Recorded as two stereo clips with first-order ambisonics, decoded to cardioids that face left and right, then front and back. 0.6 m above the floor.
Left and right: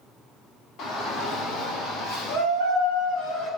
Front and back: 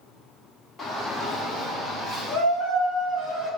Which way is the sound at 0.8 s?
70° left.